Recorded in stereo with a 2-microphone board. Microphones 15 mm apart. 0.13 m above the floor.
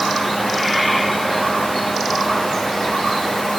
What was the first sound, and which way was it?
Only background noise.